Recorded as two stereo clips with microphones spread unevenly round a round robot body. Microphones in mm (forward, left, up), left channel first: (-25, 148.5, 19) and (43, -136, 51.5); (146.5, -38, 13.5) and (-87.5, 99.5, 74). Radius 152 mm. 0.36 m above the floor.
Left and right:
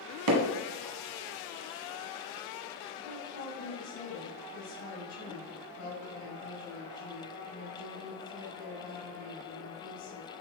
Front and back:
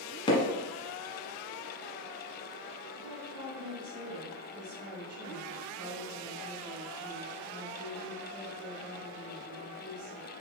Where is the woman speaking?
115° left, 2.5 m.